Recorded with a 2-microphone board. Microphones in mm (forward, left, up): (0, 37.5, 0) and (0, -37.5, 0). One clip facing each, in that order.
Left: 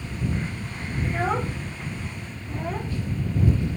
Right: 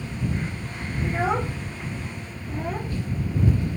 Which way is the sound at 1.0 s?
5° right (ahead or behind).